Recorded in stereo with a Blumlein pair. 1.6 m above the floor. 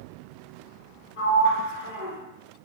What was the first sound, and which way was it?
A sliding door, 50° left.